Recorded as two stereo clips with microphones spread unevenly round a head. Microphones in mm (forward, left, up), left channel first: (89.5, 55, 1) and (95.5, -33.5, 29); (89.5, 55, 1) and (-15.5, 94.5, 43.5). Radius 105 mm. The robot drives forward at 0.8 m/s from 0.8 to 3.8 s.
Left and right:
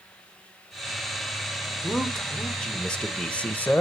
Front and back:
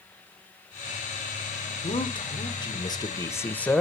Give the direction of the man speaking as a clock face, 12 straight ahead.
12 o'clock.